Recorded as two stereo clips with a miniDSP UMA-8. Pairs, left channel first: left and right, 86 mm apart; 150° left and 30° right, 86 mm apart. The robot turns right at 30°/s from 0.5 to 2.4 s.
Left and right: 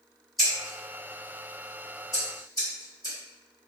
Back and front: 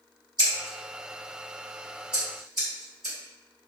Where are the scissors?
Straight ahead, 1.4 m; by 3.1 s 55° left, 1.4 m.